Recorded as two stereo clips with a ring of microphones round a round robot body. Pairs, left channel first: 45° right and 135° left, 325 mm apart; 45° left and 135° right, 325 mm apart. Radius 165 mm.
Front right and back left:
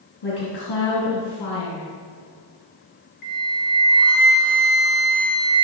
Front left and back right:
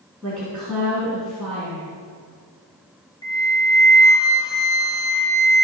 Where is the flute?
35° right, 2.5 m.